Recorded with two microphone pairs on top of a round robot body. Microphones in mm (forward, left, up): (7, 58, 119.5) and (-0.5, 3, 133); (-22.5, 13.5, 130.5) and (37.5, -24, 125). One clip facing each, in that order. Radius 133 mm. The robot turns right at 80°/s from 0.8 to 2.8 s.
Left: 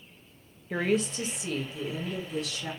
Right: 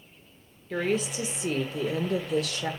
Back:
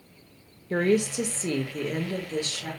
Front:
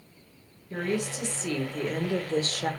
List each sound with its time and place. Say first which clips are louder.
0.7 s a woman speaking: even, back 7 dB; 155° left, 1.0 m; by 2.7 s 55° right, 1.0 m